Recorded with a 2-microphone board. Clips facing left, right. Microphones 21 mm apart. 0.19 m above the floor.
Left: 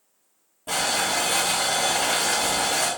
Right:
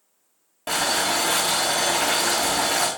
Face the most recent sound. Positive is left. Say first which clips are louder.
# right 2 dB
turn(degrees=-60)  # may be behind; listen again after turning